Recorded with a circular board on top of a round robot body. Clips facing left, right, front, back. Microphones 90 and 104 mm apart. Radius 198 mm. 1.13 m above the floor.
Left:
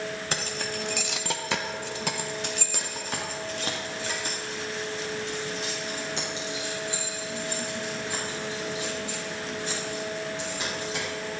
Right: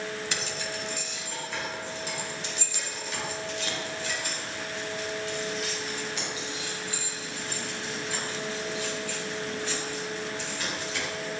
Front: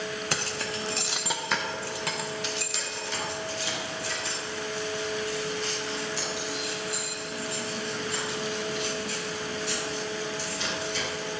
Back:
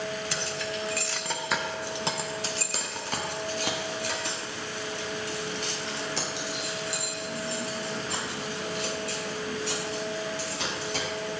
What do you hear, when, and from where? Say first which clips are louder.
0.3 s keys jangling: left 2 dB, even; 40° left, 1.0 m; by 11.4 s 160° left, 7.5 m